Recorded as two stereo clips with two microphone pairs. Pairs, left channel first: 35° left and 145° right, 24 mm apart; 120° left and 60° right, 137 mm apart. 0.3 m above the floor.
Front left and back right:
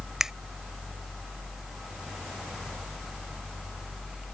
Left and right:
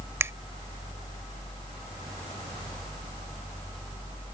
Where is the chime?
No chime in this recording.